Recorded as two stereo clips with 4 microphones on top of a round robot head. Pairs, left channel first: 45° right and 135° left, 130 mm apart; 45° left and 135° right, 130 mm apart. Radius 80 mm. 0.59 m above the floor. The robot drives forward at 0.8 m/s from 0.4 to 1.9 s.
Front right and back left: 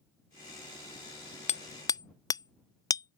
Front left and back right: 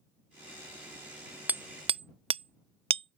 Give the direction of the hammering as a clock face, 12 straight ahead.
2 o'clock.